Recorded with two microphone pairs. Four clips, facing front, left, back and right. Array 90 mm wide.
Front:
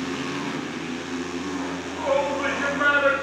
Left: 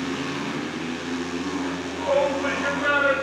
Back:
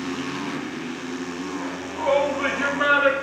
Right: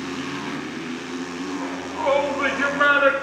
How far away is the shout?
About 2.5 m.